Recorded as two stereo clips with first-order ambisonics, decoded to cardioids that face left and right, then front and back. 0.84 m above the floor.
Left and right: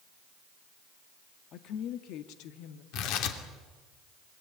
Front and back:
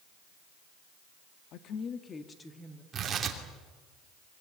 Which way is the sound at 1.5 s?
40° left.